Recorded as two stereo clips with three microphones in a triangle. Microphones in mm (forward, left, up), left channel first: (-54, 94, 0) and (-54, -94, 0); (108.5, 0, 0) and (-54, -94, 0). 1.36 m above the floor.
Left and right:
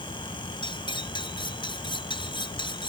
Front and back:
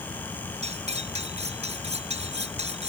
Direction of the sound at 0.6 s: 155° left.